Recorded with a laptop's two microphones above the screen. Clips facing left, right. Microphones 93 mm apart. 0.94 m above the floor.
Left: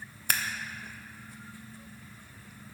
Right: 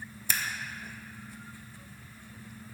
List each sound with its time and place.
0.3 s scissors: 55° left (ahead or behind), 0.5 m